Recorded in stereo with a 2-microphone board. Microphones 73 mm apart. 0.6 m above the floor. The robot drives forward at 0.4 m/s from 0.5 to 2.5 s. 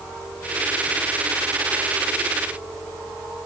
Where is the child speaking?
I don't hear a child speaking.